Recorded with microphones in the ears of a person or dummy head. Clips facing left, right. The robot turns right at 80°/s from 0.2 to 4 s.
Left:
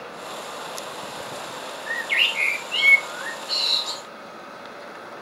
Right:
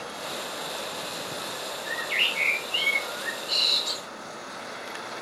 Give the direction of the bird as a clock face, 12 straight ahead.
10 o'clock.